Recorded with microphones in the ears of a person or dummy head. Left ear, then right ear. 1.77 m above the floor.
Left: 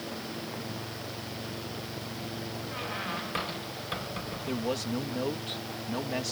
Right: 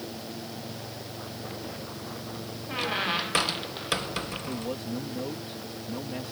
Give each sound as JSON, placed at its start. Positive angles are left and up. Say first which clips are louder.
{"t": 2.7, "sound": "a squeak", "louder": "right 8 dB", "side_deg": -30}
{"t": 4.5, "sound": "a man speaking", "louder": "left 2 dB", "side_deg": 45}